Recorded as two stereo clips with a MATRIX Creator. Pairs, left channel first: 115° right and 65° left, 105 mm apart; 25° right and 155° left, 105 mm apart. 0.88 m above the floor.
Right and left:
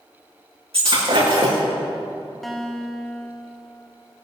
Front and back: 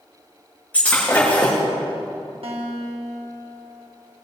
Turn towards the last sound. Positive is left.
turn(degrees=160)